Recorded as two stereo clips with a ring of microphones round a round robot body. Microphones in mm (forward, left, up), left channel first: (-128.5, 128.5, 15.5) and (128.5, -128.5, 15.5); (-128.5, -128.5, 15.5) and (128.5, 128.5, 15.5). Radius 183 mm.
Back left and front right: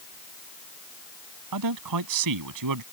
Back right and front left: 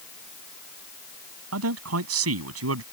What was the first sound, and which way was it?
A man speaking, 5° right.